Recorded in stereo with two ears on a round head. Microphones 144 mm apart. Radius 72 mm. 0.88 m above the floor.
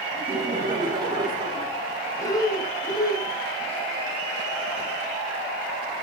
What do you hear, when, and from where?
0.1 s laughter: 30° right (ahead or behind), 10 m; by 1.8 s 25° right (ahead or behind), 10 m
2.2 s breathing: 25° left (ahead or behind), 4 m